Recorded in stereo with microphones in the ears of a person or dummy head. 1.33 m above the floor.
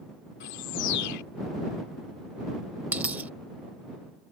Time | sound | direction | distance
0.4 | a bird | 70° left (ahead or behind) | ?
2.9 | a dropped coin | 5° right (ahead or behind) | ?